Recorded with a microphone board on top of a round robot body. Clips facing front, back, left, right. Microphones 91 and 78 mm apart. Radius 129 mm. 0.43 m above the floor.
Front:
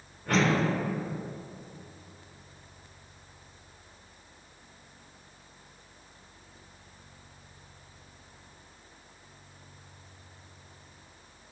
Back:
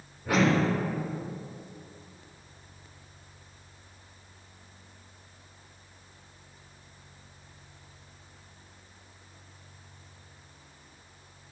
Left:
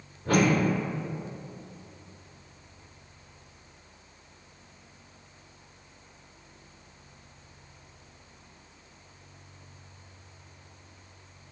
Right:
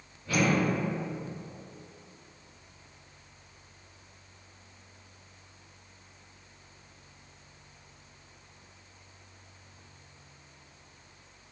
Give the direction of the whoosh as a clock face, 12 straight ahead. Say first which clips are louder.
Back 2 dB, left 3 dB; 9 o'clock.